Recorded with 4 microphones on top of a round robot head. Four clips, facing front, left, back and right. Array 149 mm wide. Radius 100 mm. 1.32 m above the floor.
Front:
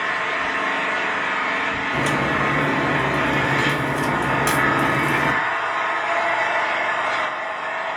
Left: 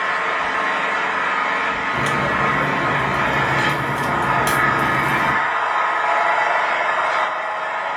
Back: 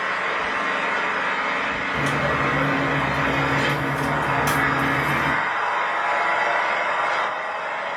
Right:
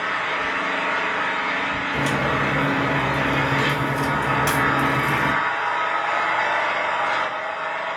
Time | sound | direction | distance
0.0 | an engine running | 85° left | 2.5 m
1.9 | a crack | 20° left | 1.1 m